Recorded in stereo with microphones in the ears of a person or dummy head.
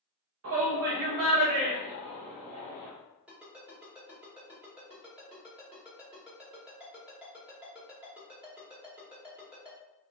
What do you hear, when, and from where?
0.4 s a shout: 70° right (ahead or behind), 0.8 m; by 2.9 s 15° right (ahead or behind), 1.9 m
3.3 s a ringtone: 5° right (ahead or behind), 1.6 m